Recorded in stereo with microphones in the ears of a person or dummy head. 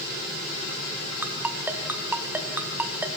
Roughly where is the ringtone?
Centre.